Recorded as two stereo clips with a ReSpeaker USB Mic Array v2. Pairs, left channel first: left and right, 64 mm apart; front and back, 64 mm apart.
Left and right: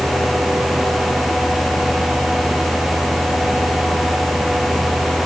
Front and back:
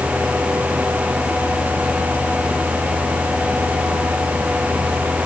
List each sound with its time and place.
Only background noise.